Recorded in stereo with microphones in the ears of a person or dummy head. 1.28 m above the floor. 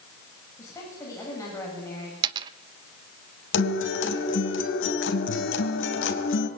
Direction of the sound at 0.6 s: 20° left (ahead or behind).